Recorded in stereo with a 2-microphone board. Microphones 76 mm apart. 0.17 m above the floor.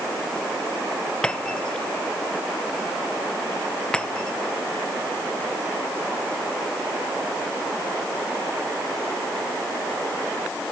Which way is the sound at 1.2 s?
10° left (ahead or behind).